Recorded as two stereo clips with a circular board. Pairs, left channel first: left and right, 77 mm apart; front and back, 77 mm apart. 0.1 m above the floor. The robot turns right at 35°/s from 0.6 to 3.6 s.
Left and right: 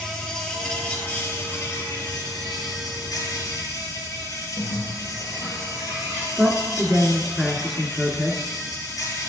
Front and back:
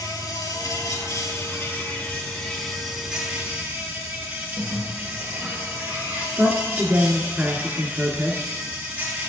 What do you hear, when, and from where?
0.0 s an insect: 10° left, 1.7 m; by 9.3 s 115° left, 1.7 m
4.6 s a bird: 100° left, 3 m
6.4 s a man speaking: 175° right, 1.2 m